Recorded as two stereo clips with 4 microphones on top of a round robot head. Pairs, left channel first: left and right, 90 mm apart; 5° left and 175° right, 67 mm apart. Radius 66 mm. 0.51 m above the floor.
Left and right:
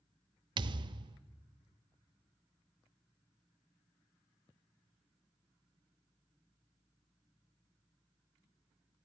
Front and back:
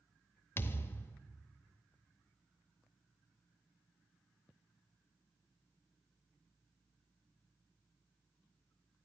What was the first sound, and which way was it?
A thud, 60° right.